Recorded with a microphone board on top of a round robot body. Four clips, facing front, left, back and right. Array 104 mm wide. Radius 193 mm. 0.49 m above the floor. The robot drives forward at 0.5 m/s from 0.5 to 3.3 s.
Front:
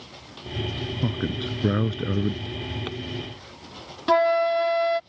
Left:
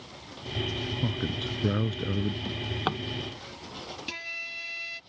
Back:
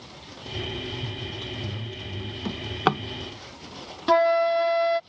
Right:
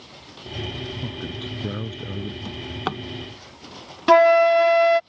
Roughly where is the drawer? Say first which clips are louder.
Right 2 dB, back 7 dB; behind.